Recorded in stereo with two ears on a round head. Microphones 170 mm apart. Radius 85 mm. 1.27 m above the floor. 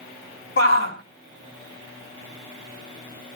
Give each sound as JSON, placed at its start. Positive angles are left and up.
{"t": 0.6, "sound": "a shout", "side_deg": 50, "distance_m": 2.5}